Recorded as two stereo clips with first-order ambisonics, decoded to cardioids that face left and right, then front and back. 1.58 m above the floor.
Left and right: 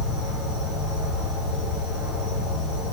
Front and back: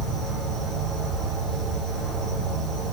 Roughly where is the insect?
Behind left.